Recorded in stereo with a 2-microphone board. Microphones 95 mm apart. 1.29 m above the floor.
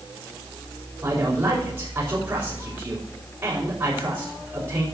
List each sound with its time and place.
1.0 s a man speaking: 35° right (ahead or behind), 5 m